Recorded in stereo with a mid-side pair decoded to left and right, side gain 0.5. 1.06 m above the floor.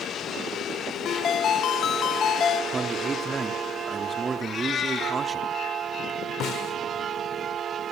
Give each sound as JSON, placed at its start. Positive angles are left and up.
{"t": 1.1, "sound": "a ringtone", "azimuth_deg": 50, "distance_m": 0.7}
{"t": 2.7, "sound": "a man speaking", "azimuth_deg": -35, "distance_m": 3.0}
{"t": 4.4, "sound": "a cat meowing", "azimuth_deg": 45, "distance_m": 8.0}
{"t": 6.4, "sound": "a snare drum", "azimuth_deg": 60, "distance_m": 3.5}